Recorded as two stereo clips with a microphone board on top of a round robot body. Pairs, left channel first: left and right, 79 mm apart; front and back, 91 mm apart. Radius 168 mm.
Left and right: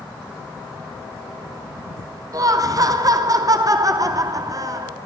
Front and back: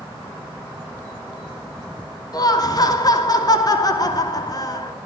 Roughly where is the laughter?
Ahead right.